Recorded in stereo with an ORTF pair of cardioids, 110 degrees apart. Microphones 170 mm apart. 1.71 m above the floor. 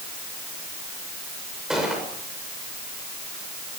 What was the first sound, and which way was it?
A gunshot, 5° right.